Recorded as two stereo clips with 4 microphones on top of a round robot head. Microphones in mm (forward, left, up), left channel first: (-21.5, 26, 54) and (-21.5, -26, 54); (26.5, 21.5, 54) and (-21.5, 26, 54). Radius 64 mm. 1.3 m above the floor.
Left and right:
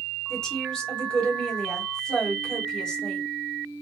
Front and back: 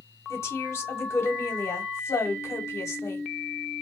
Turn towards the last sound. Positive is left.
turn(degrees=15)